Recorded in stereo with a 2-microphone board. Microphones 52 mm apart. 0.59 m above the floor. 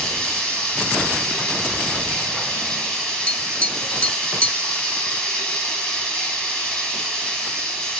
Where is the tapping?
25° left (ahead or behind), 0.5 m.